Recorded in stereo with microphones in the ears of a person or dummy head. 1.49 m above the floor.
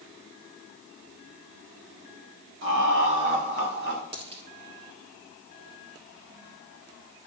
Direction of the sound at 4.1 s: 40° right (ahead or behind).